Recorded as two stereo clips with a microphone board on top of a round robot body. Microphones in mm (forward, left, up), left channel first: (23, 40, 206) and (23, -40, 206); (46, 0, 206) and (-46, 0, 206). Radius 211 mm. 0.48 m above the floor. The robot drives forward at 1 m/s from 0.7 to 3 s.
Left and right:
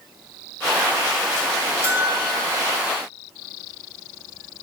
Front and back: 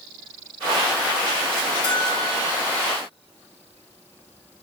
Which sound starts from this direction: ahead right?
A bell, at 1.8 s.